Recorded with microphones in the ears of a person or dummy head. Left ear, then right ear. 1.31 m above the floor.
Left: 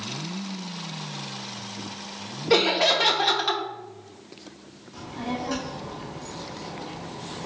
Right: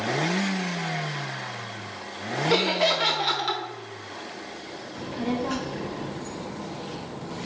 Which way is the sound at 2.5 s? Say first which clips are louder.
Left 3 dB; 10° left (ahead or behind).